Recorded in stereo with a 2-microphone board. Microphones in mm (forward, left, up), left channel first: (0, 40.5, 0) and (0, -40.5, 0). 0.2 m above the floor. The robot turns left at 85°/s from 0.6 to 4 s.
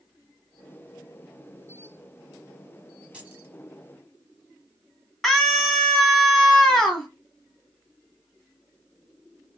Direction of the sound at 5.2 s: 5° left (ahead or behind).